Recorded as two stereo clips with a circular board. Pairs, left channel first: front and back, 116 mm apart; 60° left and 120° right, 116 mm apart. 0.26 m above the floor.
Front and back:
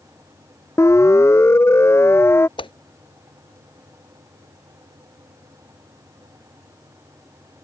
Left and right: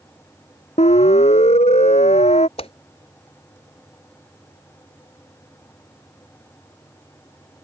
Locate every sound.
0.8 s a siren: 65° left; by 2.5 s 70° left
2.6 s a whoosh: 35° left